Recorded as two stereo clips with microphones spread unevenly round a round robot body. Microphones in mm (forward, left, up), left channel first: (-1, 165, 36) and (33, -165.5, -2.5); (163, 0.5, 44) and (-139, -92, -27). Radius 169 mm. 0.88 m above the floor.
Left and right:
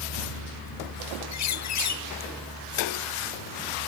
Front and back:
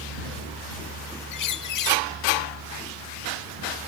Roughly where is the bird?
Ahead left.